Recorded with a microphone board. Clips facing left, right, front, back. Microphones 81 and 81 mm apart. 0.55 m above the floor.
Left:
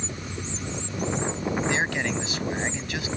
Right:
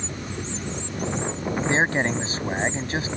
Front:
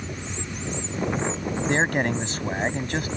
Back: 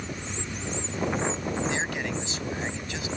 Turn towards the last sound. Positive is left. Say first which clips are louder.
# right 4 dB, front 7 dB
turn(degrees=-35)